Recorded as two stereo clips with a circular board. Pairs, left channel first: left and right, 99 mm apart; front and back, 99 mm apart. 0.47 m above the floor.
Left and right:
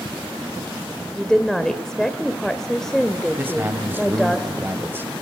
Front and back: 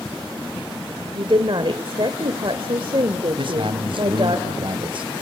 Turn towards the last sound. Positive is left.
turn(degrees=-155)